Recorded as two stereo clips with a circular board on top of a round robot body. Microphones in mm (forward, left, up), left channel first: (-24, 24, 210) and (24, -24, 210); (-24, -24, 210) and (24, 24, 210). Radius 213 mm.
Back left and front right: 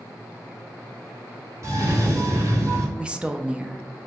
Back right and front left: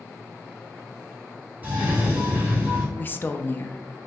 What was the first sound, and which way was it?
A cough, 15° right.